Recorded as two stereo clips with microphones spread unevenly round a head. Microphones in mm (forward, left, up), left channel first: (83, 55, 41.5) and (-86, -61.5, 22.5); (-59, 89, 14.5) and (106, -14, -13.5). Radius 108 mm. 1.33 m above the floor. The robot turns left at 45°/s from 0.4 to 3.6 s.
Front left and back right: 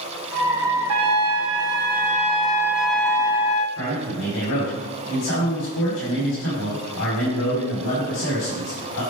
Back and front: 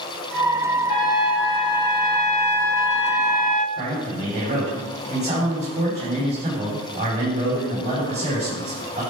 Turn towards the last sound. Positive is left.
turn(degrees=25)